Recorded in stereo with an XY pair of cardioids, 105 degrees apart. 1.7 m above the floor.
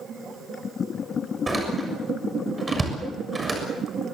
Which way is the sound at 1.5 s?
15° right.